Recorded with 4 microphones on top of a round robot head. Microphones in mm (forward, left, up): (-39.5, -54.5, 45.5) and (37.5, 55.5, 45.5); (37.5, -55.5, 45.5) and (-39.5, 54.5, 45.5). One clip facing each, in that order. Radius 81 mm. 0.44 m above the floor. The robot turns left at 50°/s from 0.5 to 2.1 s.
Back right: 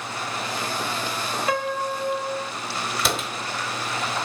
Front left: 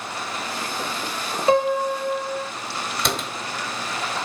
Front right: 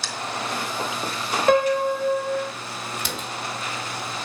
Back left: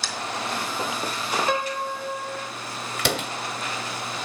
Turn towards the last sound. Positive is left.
turn(degrees=145)